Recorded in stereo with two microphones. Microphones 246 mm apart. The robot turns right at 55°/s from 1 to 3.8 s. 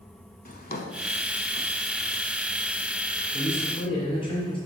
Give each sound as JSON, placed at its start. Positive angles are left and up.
{"t": 0.5, "sound": "a drawer", "side_deg": 40, "distance_m": 0.7}
{"t": 3.3, "sound": "a man speaking", "side_deg": 40, "distance_m": 2.5}